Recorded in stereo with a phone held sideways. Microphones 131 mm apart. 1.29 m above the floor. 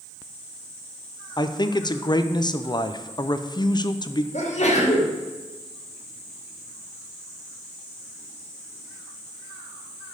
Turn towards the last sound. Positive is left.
turn(degrees=60)  # may be behind; listen again after turning